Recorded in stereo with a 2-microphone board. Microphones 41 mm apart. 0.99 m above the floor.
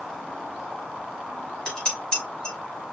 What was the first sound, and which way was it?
Dishes clattering, 20° left (ahead or behind).